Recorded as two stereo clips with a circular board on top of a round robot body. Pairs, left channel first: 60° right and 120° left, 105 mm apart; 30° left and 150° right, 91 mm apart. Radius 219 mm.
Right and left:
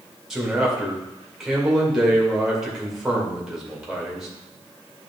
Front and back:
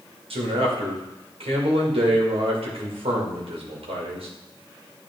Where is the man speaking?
155° right, 2 m.